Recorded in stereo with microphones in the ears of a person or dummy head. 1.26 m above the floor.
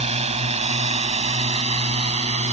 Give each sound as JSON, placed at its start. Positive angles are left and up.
{"t": 0.0, "sound": "a drone", "side_deg": -35}